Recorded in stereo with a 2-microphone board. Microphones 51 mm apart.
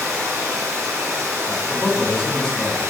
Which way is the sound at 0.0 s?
80° right.